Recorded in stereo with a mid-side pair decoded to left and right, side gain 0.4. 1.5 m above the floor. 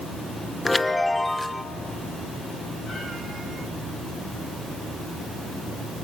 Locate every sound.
0.7 s a chime: 15° left, 0.9 m